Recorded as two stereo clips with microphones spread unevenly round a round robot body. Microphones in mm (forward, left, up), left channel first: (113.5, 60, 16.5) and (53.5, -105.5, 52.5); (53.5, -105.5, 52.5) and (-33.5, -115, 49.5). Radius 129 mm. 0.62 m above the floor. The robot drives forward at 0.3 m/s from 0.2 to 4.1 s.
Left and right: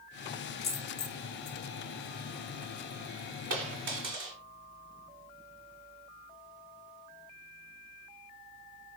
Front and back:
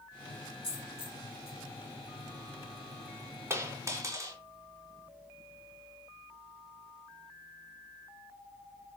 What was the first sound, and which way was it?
A dropped coin, 35° left.